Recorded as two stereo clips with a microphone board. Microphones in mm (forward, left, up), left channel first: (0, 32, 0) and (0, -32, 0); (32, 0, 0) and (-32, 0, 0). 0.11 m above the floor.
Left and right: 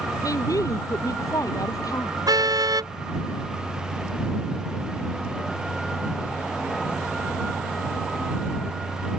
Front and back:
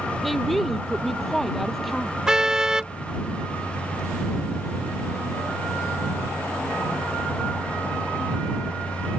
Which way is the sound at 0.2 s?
85° left.